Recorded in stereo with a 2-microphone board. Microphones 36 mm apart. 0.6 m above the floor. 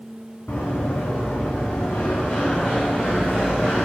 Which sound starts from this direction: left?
Running footsteps, at 0.5 s.